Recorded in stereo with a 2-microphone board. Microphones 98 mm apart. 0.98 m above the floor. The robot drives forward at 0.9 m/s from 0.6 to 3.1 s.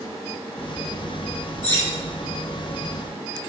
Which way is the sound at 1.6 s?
30° left (ahead or behind).